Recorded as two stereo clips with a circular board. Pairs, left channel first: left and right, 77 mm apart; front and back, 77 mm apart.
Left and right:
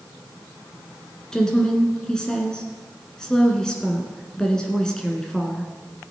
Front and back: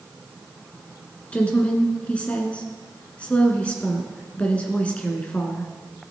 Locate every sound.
1.3 s a woman speaking: 30° left, 1.5 m